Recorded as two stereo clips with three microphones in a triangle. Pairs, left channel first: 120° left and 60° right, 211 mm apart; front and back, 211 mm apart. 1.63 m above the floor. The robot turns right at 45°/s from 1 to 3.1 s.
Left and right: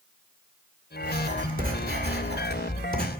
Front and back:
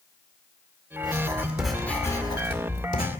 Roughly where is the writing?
Behind right.